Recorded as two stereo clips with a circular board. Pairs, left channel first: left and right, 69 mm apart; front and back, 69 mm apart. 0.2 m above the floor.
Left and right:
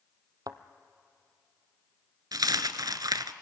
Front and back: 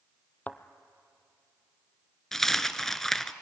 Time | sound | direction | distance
0.5 | a thud | 65° right | 0.8 m
2.3 | a dropped coin | 85° right | 0.7 m